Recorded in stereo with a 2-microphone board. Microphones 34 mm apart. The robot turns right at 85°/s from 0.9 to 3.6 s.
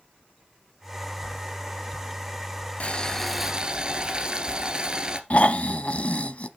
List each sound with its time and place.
2.8 s boiling: 140° left, 1.4 m; by 5.2 s 155° right, 1.4 m
5.3 s snoring: 45° left (ahead or behind), 0.8 m